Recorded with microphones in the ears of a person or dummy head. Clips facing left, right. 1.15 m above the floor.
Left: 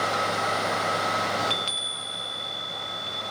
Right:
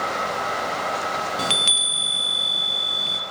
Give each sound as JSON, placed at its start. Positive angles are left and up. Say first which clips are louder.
{"t": 1.4, "sound": "a chime", "louder": "right 2 dB", "side_deg": -60, "distance_m": 0.6}